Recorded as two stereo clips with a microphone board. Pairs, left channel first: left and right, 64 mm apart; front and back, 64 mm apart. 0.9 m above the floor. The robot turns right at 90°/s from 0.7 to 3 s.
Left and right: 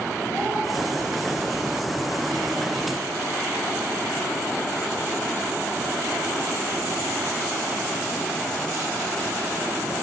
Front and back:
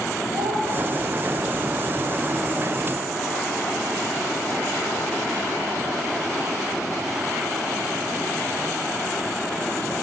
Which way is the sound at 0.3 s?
160° left.